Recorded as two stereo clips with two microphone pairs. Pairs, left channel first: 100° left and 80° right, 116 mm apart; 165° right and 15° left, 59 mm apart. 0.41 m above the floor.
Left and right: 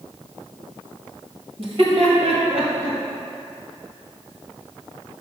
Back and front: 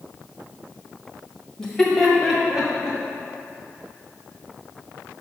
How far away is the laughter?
About 1.6 m.